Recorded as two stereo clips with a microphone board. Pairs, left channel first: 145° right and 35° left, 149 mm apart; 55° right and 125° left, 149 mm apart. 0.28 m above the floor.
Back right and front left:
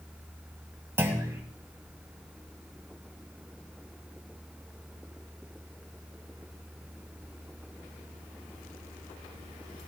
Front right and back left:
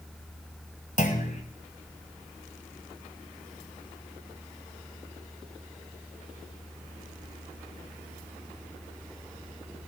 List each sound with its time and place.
1.0 s a clunk: 40° right, 1.7 m